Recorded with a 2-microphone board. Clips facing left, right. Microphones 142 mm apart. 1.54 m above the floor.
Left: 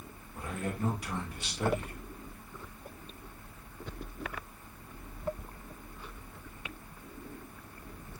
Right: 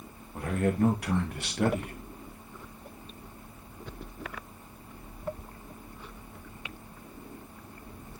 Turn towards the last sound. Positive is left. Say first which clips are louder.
# right 9 dB
turn(degrees=-65)  # may be behind; listen again after turning